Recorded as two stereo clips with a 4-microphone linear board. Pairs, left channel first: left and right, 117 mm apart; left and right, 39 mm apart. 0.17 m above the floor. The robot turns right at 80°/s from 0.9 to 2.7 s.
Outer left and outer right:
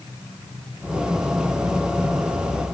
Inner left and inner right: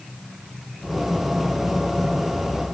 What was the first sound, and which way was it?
Only background noise.